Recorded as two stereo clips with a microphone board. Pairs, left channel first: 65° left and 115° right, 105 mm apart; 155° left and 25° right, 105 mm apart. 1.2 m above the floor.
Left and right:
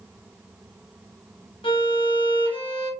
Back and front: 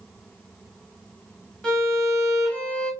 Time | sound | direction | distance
1.6 | a violin | 75° left | 0.8 m